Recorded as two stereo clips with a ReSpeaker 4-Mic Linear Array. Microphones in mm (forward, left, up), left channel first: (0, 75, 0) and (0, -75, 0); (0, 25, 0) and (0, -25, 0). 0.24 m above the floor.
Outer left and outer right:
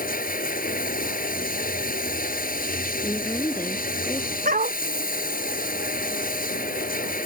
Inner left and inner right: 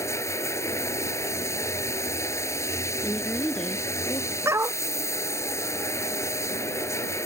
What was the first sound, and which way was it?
Running water, 75° left (ahead or behind).